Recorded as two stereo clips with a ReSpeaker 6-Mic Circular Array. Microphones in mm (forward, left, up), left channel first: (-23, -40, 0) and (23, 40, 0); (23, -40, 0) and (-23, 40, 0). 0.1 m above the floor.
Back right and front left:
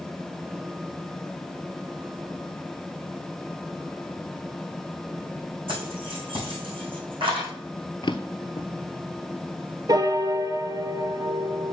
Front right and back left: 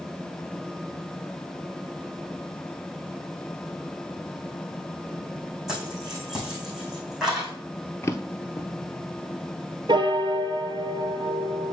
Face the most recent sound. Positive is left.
turn(degrees=100)